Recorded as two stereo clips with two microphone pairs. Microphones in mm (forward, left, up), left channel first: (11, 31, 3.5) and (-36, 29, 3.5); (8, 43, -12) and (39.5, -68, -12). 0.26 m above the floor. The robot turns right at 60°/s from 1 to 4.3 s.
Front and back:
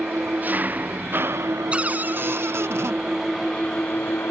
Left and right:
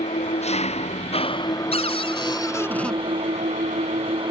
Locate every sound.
0.0 s an engine running: 125° left; by 4.3 s 35° right
1.7 s a cupboard door: 115° left; by 3.0 s 170° right